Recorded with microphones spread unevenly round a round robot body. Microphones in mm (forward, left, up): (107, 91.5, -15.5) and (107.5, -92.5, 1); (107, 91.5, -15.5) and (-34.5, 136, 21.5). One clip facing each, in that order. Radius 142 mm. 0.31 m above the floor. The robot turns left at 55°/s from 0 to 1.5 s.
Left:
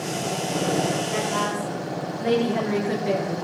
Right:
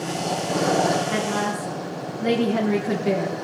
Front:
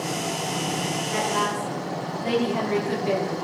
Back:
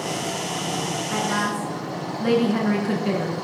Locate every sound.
1.1 s a woman speaking: 135° right, 4 m; by 3.3 s 155° right, 4 m